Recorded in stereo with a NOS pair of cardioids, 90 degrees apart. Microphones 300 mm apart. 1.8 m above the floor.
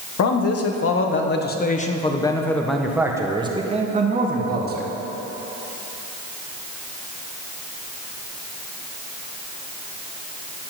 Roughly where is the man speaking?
Ahead left.